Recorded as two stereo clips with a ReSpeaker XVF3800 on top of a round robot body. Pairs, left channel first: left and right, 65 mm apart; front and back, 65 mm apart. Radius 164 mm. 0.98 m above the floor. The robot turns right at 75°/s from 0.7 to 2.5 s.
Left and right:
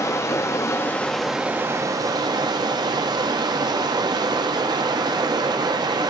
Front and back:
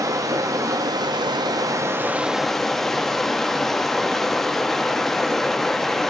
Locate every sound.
0.0 s running water: 140° left, 1.1 m; by 6.1 s 85° right, 1.1 m